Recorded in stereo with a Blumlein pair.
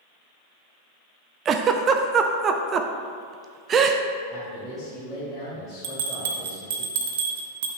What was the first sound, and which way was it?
A giggle, 25° right.